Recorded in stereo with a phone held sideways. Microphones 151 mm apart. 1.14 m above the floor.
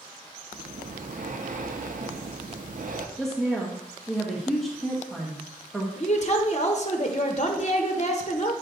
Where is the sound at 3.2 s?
Centre (ahead or behind), 1.3 m.